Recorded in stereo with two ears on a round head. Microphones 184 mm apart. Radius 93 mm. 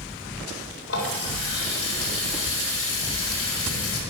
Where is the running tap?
70° left (ahead or behind), 4 m.